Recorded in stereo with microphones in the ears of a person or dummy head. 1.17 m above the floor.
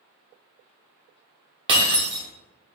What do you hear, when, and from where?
1.7 s breaking glass: 30° right (ahead or behind), 1.0 m